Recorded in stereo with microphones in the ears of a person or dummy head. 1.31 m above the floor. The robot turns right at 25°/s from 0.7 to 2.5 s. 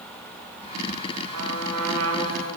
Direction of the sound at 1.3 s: 75° right (ahead or behind).